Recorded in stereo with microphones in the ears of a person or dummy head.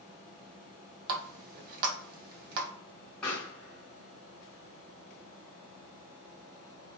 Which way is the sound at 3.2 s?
10° left (ahead or behind).